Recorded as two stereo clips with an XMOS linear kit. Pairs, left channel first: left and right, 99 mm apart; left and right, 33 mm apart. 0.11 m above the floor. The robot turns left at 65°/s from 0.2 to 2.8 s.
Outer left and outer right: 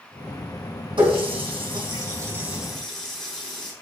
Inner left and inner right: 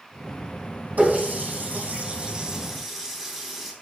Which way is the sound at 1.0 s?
60° right (ahead or behind).